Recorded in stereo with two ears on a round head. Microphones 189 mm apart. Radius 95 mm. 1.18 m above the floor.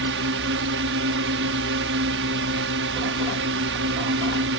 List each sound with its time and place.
0.0 s a drone: 60° right (ahead or behind)